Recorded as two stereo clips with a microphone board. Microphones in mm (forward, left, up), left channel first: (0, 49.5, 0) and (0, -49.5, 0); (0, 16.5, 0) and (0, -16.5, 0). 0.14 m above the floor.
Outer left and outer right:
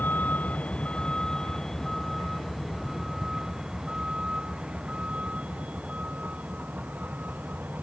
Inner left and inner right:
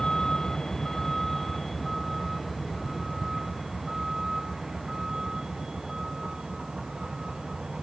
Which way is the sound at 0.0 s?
15° left (ahead or behind).